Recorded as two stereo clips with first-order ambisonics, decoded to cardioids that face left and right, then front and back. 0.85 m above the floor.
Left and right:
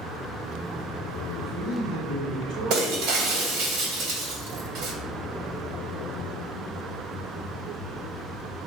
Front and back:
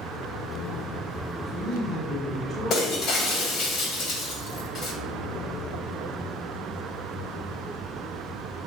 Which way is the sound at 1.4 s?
80° right.